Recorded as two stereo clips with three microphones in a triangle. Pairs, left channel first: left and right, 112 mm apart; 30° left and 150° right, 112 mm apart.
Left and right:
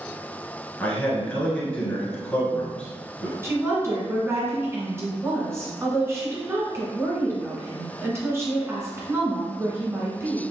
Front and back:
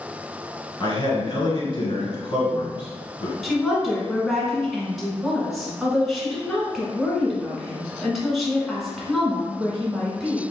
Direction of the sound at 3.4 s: 60° right.